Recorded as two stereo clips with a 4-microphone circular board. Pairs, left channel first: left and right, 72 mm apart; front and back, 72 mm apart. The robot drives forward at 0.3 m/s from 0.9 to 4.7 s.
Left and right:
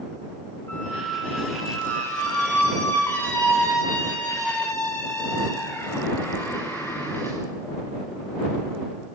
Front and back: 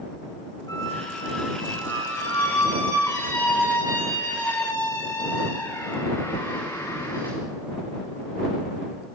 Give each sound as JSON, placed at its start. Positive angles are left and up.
{"t": 0.7, "sound": "a squeak", "azimuth_deg": 30, "distance_m": 7.5}